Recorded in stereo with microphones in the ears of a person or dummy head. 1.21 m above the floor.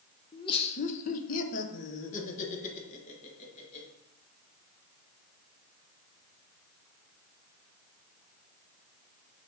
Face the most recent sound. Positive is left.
turn(degrees=35)  # may be behind; listen again after turning